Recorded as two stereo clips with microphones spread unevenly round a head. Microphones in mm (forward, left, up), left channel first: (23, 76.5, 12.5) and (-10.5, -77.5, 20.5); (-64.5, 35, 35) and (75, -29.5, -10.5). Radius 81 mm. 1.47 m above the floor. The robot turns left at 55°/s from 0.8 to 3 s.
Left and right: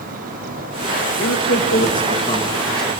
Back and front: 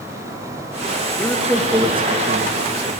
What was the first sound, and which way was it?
A man speaking, 80° left.